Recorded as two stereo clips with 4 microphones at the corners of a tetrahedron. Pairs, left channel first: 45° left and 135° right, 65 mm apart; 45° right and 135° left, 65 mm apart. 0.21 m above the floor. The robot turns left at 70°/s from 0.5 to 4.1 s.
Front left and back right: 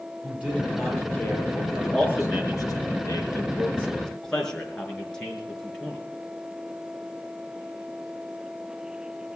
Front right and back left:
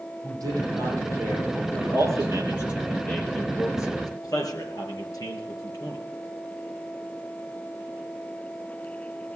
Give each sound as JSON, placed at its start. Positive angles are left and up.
{"t": 0.2, "sound": "a man speaking", "azimuth_deg": 160, "distance_m": 7.5}
{"t": 1.8, "sound": "a man speaking", "azimuth_deg": 130, "distance_m": 4.5}